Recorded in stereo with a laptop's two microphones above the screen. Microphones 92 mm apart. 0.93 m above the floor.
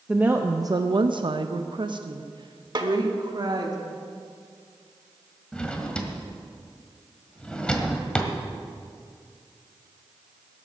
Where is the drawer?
10° left (ahead or behind), 1.5 m.